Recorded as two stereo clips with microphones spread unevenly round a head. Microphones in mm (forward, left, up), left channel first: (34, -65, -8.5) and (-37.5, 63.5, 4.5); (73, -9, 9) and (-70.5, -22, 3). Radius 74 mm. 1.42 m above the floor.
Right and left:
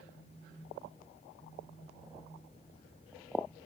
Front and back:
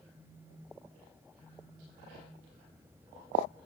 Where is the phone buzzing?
80° right, 6.5 m.